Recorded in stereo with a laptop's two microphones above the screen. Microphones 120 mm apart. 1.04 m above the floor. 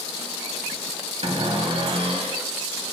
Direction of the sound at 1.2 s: 55° right (ahead or behind).